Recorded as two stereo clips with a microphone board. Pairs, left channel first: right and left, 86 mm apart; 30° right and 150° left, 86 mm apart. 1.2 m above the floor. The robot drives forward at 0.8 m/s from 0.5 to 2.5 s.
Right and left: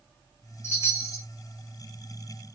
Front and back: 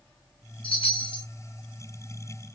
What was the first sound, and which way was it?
A chime, 30° right.